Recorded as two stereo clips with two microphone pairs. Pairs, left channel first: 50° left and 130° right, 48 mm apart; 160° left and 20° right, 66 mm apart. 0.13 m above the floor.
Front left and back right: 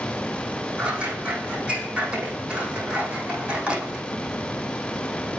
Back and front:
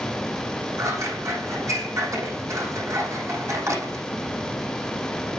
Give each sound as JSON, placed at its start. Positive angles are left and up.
{"t": 0.8, "sound": "scissors", "azimuth_deg": -60, "distance_m": 7.0}